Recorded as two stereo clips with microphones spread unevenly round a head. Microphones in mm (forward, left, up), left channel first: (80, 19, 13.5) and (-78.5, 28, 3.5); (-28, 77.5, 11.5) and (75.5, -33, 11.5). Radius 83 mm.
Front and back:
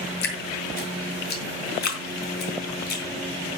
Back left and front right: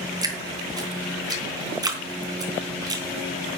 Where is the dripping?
15° left, 3.5 m.